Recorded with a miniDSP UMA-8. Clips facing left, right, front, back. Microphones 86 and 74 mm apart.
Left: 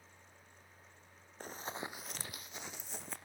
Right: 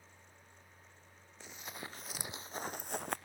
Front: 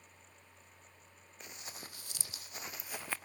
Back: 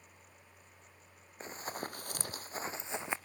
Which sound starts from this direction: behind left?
Running footsteps, at 1.4 s.